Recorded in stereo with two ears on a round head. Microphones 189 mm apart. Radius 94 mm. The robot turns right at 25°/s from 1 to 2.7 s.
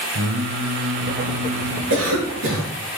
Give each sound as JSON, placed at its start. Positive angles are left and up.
{"t": 0.1, "sound": "singing", "side_deg": -65, "distance_m": 0.8}
{"t": 1.9, "sound": "a cough", "side_deg": -70, "distance_m": 4.5}